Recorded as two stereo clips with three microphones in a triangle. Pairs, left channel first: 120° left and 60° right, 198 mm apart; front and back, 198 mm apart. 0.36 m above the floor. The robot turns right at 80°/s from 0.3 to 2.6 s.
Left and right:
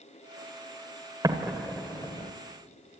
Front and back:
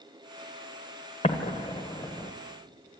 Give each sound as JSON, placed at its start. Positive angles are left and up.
{"t": 1.2, "sound": "an explosion", "azimuth_deg": -5, "distance_m": 1.4}